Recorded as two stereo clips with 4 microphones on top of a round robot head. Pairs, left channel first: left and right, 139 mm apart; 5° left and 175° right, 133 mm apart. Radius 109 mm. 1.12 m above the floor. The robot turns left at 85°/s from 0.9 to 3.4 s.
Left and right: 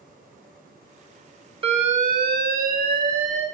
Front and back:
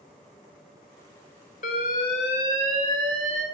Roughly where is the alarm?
Ahead right.